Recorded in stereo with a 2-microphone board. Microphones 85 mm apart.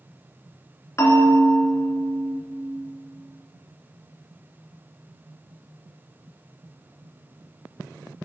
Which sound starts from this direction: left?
A bell, at 1.0 s.